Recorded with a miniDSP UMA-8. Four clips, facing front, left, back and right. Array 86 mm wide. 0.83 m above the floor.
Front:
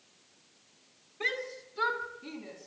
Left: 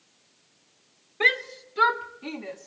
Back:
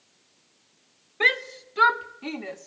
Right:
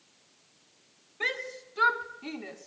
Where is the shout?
155° left, 1.9 m; by 2.7 s straight behind, 3 m.